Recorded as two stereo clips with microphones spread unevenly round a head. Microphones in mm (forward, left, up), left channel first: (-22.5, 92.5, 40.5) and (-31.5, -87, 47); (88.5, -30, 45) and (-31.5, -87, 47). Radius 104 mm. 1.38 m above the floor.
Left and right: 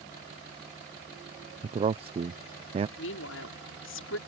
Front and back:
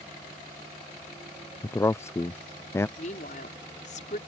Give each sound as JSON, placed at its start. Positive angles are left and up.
{"t": 1.6, "sound": "a man speaking", "azimuth_deg": -40}
{"t": 3.0, "sound": "a woman speaking", "azimuth_deg": 75}